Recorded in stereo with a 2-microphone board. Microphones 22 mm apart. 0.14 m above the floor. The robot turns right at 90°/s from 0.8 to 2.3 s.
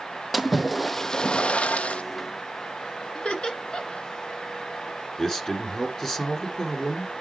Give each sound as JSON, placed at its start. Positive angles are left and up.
{"t": 0.3, "sound": "a splash", "azimuth_deg": -5, "distance_m": 0.8}
{"t": 3.1, "sound": "laughter", "side_deg": 40, "distance_m": 2.0}
{"t": 5.2, "sound": "a man speaking", "side_deg": 25, "distance_m": 1.9}